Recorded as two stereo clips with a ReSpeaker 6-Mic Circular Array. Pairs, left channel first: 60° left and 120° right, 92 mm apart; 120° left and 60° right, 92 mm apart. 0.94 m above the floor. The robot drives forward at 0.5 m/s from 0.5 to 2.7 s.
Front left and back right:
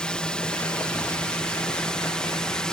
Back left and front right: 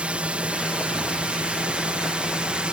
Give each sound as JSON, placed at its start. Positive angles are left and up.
{"t": 0.0, "sound": "a drone", "azimuth_deg": -5}